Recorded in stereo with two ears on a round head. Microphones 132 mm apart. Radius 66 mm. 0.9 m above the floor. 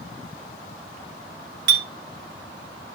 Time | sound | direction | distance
1.7 | a clink | 80° right | 0.8 m